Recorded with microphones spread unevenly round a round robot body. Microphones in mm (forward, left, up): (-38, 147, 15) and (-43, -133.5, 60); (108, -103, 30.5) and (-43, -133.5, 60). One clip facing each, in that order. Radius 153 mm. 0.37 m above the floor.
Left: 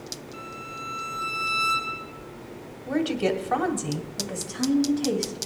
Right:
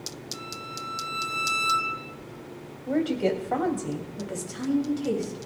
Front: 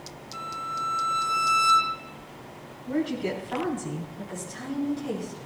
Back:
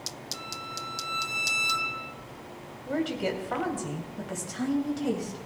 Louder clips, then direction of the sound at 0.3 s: Even, front 3 dB; 90° right.